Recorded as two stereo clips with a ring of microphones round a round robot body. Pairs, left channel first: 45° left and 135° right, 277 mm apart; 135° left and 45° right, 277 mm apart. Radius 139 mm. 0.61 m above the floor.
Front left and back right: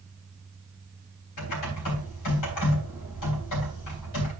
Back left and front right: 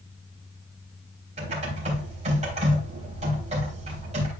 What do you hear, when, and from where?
1.4 s typing on a keyboard: 25° left, 3.5 m